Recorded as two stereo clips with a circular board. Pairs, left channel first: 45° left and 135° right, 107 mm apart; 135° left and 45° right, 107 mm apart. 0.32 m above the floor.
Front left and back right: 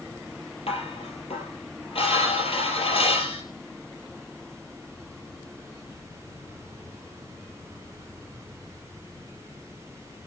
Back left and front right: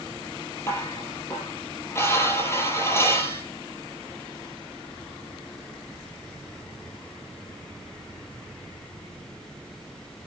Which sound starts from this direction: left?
Dishes clattering, at 0.7 s.